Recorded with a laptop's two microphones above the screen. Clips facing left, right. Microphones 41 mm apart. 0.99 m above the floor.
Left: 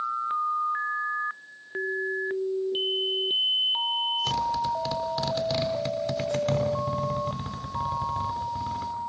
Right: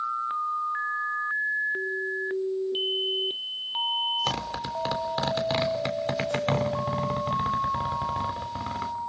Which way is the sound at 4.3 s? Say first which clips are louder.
Left 4 dB; 30° right (ahead or behind).